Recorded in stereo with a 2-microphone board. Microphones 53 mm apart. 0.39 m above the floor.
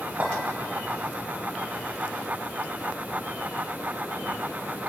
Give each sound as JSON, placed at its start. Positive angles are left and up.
{"t": 0.2, "sound": "a clink", "side_deg": -40, "distance_m": 5.5}